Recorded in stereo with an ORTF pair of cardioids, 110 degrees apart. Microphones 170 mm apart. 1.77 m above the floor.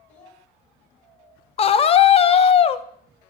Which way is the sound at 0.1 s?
45° left.